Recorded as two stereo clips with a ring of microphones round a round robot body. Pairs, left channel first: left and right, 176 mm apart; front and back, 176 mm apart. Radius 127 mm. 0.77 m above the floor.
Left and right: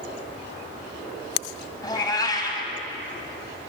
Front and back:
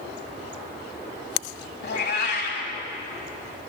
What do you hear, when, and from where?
1.8 s a cat meowing: 20° left, 2.5 m